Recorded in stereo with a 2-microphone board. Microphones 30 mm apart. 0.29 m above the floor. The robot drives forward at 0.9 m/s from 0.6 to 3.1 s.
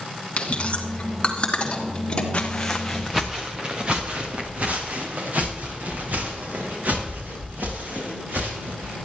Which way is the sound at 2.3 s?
40° left (ahead or behind).